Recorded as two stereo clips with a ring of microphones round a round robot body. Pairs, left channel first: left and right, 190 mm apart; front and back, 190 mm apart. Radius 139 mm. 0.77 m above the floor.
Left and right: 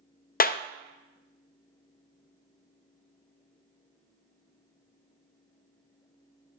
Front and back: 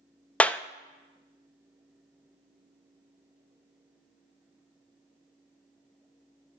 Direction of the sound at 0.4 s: 80° left.